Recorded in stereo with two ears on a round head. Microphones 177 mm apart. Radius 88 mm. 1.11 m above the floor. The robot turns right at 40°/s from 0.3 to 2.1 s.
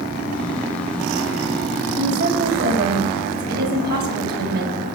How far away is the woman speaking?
About 5.5 m.